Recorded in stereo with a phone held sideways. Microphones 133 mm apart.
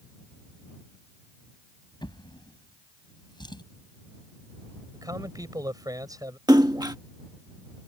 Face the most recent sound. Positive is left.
turn(degrees=-30)  # may be behind; listen again after turning